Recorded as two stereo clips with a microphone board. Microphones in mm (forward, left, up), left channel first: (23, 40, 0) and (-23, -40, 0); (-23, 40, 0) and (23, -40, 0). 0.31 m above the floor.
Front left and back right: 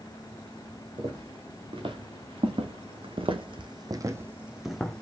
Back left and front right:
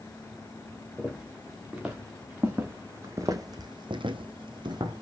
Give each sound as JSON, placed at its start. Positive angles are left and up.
{"t": 1.0, "sound": "footsteps", "azimuth_deg": -145, "distance_m": 2.0}